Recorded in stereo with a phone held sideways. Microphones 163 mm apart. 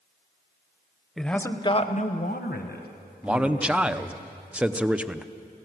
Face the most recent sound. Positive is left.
turn(degrees=-5)  # may be behind; listen again after turning